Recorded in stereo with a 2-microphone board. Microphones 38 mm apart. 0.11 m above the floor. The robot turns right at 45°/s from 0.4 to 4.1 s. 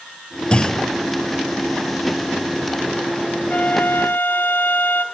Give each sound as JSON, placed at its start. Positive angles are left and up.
{"t": 0.5, "sound": "a clunk", "side_deg": 25, "distance_m": 0.5}
{"t": 3.5, "sound": "a flute", "side_deg": 40, "distance_m": 0.6}